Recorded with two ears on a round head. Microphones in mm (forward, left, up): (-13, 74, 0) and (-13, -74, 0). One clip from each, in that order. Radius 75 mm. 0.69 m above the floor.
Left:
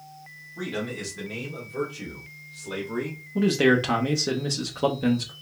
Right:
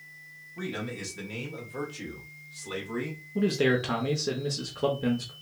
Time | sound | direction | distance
0.6 | a man speaking | 5° left (ahead or behind) | 1.3 m
3.4 | a man speaking | 10° left (ahead or behind) | 0.6 m